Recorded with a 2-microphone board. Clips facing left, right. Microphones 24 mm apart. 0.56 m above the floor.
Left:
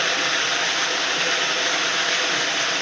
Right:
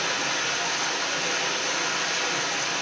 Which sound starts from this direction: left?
Running water, at 0.0 s.